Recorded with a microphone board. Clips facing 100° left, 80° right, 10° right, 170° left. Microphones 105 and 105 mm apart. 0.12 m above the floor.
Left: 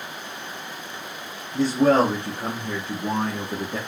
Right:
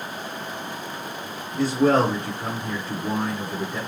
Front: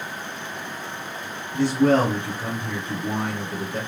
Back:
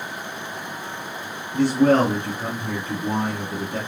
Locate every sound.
1.5 s a man speaking: 150° left, 1.9 m; by 3.8 s 125° left, 3 m